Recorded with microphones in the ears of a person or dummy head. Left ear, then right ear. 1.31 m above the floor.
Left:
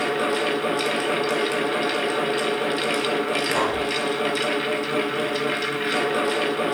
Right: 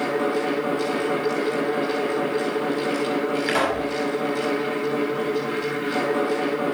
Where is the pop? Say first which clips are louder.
Even; 85° right, 7 m.